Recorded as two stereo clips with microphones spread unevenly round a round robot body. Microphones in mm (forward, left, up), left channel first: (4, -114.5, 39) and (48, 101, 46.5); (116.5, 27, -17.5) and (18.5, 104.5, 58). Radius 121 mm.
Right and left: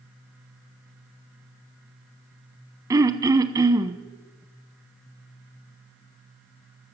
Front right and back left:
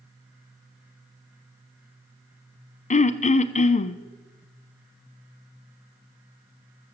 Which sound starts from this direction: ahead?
Throat clearing, at 2.9 s.